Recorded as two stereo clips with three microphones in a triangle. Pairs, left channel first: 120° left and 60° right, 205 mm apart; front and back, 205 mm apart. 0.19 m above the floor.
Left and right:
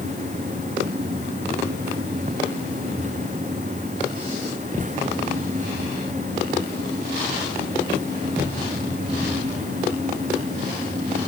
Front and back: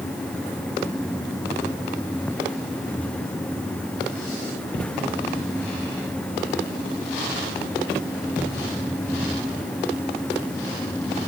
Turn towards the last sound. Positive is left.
No sound to turn to.